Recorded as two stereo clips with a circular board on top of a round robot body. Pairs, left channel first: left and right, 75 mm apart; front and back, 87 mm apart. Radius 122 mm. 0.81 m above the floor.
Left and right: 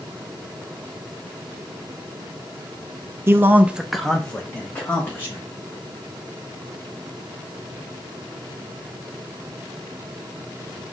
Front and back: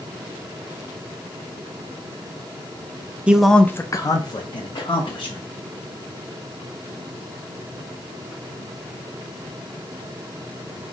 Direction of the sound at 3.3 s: 110° right.